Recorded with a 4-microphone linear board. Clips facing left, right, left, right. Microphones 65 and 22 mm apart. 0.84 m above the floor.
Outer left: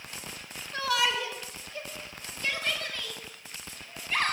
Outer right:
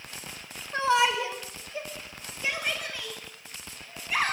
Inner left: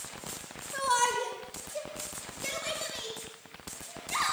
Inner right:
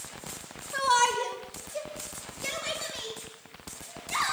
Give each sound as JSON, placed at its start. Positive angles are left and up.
{"t": 0.7, "sound": "a shout", "side_deg": -25, "distance_m": 4.0}